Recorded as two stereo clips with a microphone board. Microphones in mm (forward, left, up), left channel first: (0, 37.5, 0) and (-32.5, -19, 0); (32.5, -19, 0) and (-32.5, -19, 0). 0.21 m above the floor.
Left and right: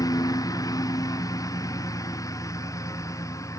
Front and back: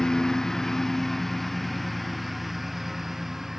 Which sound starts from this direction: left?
A lawn mower, at 0.0 s.